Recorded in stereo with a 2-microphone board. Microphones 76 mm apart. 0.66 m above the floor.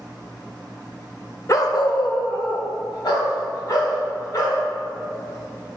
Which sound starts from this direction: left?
A dog barking, at 1.5 s.